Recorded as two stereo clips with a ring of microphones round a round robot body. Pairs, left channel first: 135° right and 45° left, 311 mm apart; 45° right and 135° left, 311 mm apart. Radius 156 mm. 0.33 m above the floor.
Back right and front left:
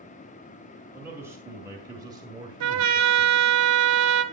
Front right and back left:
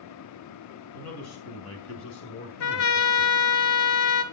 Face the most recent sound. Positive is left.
turn(degrees=0)